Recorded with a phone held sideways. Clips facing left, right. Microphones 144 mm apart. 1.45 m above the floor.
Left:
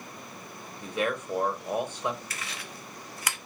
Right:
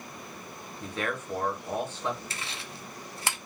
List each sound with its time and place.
0.8 s a man speaking: 15° left (ahead or behind), 0.9 m
2.3 s chewing: 25° right (ahead or behind), 0.5 m